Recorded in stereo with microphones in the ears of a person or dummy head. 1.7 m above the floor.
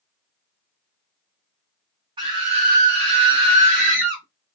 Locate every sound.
2.2 s a scream: 25° right (ahead or behind), 0.7 m; by 4.2 s 75° right (ahead or behind), 1.0 m